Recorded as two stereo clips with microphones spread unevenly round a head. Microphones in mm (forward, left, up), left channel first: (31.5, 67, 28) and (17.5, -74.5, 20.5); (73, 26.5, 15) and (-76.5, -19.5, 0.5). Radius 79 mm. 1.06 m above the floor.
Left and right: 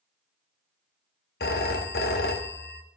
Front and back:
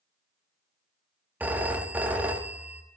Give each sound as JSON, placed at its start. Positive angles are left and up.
{"t": 1.4, "sound": "a phone ringing", "azimuth_deg": 115, "distance_m": 0.9}